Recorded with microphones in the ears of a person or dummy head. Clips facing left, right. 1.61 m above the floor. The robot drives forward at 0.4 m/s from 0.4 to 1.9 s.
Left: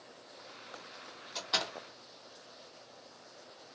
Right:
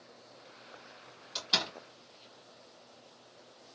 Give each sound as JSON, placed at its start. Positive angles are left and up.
{"t": 1.4, "sound": "a door slam", "side_deg": -45, "distance_m": 1.5}